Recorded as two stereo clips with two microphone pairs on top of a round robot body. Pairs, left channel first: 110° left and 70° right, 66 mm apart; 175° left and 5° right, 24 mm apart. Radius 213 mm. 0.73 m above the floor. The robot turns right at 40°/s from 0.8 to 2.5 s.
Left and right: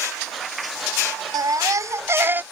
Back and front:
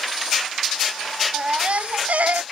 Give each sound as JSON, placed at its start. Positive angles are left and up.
{"t": 1.3, "sound": "a baby crying", "azimuth_deg": -50}